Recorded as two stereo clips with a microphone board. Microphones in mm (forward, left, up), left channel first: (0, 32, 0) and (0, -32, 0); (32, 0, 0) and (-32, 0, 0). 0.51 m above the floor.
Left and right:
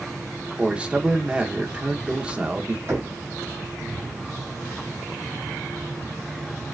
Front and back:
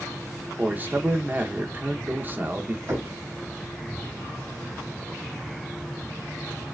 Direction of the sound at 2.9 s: 130° right.